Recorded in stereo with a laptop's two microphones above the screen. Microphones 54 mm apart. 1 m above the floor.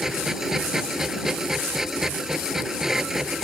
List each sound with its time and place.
0.0 s a machine running: 10° right (ahead or behind)